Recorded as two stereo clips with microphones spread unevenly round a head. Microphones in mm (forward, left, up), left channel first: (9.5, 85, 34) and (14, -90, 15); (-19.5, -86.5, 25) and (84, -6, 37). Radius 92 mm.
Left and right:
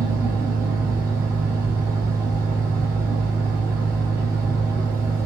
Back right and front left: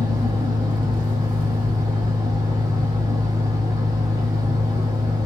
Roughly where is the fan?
Ahead.